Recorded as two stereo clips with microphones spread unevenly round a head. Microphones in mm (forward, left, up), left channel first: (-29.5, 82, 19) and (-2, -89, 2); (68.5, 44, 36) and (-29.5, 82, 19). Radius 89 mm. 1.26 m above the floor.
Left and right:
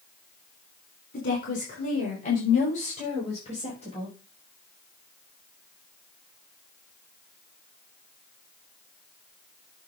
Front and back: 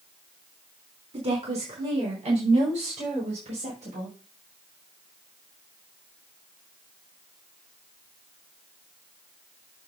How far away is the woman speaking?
About 4 m.